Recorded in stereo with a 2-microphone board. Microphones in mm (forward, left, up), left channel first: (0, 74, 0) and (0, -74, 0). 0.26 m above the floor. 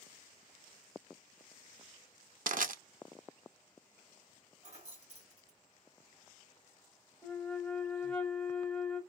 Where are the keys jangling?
50° right (ahead or behind), 1.7 m.